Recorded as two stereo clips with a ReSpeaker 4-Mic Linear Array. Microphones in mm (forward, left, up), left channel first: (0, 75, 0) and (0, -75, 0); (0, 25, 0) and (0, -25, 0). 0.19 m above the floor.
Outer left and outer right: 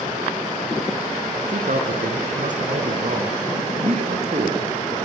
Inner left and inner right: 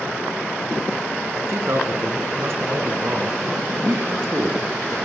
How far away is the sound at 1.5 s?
About 2.5 m.